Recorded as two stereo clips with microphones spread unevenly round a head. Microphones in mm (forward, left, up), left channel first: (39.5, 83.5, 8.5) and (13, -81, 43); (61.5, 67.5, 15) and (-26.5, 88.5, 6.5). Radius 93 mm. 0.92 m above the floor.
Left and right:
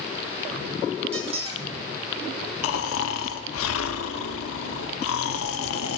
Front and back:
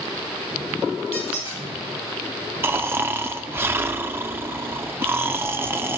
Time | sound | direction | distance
1.1 | a squeak | 50° right | 1.7 m
2.6 | snoring | 100° left | 0.7 m